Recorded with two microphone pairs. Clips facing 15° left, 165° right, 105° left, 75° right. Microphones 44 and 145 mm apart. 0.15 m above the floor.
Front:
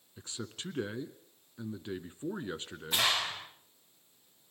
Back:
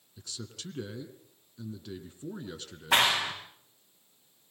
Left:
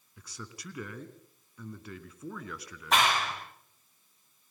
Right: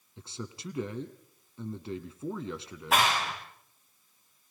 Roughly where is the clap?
Behind.